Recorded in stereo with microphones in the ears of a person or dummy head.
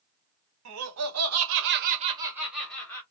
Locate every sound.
0.7 s laughter: 75° right (ahead or behind), 1.1 m; by 3.0 s 20° left (ahead or behind), 1.0 m